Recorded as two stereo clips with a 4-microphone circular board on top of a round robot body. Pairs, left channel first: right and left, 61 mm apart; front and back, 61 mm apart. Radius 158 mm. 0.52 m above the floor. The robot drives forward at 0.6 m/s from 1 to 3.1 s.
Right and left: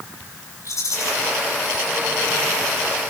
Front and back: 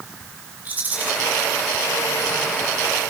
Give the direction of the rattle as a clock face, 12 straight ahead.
4 o'clock.